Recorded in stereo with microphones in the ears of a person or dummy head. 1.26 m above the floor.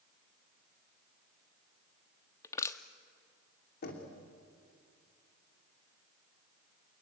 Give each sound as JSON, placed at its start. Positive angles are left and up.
{"t": 2.4, "sound": "crushing", "side_deg": 15, "distance_m": 1.0}
{"t": 3.8, "sound": "knocking", "side_deg": 60, "distance_m": 2.5}